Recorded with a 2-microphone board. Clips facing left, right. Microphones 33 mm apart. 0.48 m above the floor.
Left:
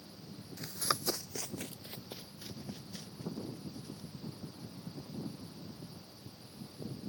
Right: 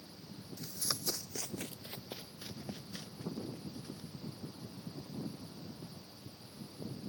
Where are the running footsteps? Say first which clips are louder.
Left 6 dB; 60° left (ahead or behind); by 4.1 s 25° right (ahead or behind).